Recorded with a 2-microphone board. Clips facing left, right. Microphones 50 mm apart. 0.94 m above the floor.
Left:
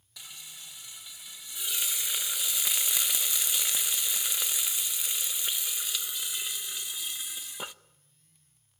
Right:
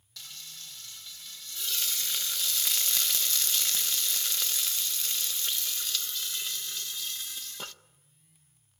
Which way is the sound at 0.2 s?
15° left (ahead or behind).